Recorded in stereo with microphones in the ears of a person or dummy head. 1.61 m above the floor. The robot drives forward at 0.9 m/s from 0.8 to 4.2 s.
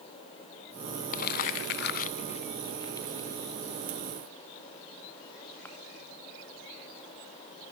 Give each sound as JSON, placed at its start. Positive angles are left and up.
{"t": 1.1, "sound": "crumpling", "side_deg": 40, "distance_m": 0.8}